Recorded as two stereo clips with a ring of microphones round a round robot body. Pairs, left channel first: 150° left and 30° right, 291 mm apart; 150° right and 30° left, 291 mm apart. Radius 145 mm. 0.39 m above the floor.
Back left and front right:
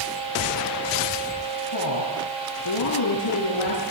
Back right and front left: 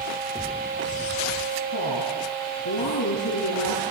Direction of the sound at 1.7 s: 175° left.